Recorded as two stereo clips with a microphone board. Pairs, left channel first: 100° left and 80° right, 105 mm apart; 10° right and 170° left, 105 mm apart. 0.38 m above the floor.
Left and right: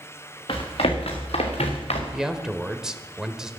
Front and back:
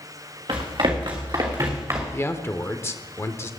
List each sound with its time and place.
0.5 s running footsteps: 135° left, 3 m; by 2.0 s 105° left, 2.5 m
2.1 s a man speaking: 5° right, 0.8 m